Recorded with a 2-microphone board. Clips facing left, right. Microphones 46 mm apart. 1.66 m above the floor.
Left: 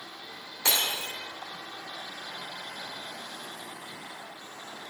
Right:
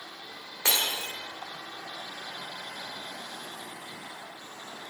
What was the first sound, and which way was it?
Breaking glass, 25° right (ahead or behind).